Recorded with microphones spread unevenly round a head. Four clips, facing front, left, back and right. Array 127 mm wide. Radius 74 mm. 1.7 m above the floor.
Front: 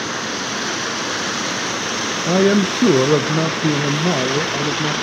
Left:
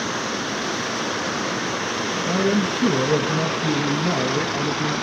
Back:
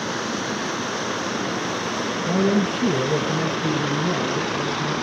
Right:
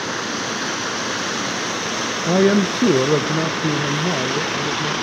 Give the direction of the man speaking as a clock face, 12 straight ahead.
2 o'clock.